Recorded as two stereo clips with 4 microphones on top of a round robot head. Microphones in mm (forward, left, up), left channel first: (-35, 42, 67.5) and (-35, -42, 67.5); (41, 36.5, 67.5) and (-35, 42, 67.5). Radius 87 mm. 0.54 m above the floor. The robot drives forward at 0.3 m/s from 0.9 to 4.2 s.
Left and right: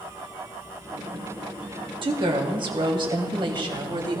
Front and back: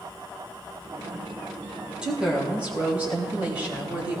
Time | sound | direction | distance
2.0 | a woman speaking | 105° right | 3 m